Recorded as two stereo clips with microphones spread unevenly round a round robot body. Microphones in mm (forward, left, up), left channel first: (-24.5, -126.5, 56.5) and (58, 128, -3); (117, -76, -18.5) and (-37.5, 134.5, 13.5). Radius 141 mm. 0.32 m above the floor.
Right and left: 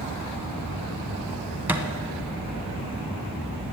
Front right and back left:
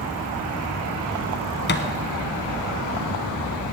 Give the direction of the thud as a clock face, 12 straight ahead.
12 o'clock.